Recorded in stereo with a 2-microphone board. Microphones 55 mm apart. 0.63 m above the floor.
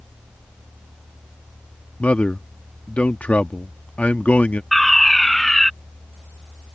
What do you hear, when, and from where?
2.0 s a man speaking: 25° left (ahead or behind)
4.7 s a fire alarm: 5° left (ahead or behind)